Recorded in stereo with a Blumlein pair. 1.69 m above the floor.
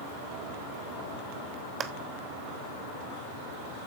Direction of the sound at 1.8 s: 25° right.